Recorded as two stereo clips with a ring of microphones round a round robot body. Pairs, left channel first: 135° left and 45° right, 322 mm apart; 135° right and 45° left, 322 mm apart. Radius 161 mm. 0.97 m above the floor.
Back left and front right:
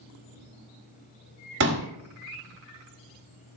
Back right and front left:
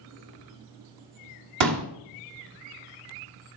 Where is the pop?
10° left, 2.0 m.